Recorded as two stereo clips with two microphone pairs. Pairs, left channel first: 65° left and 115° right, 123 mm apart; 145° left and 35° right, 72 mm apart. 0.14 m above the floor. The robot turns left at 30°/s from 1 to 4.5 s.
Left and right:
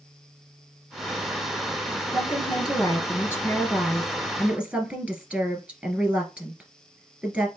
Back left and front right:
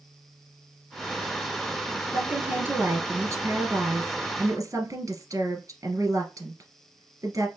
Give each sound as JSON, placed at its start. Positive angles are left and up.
{"t": 2.1, "sound": "a woman speaking", "azimuth_deg": 30, "distance_m": 1.8}